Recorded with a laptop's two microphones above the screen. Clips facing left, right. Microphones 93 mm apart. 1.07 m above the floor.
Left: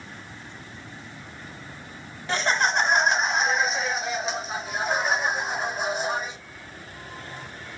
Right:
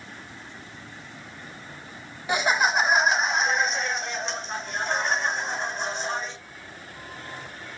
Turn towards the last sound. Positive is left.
turn(degrees=10)  # may be behind; listen again after turning